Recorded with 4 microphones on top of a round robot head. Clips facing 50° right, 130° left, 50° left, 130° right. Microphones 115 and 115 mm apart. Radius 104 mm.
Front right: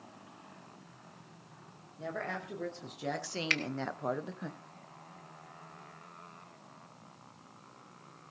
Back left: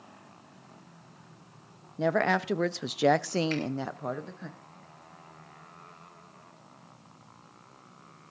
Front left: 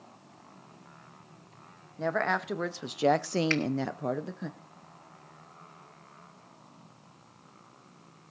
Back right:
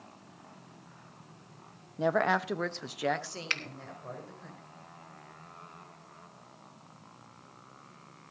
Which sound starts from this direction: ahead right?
A finger snap, at 3.5 s.